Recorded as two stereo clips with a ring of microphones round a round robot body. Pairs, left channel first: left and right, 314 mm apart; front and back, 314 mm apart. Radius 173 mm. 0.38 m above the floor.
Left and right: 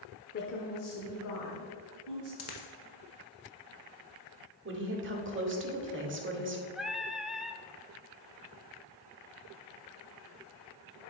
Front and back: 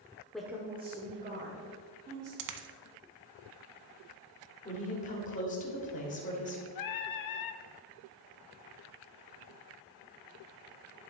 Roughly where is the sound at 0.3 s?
Left.